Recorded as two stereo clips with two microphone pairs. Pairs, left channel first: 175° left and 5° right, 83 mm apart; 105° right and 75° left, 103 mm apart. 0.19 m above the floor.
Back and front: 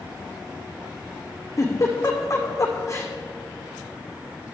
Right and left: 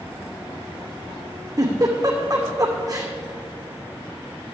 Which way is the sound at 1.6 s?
130° left.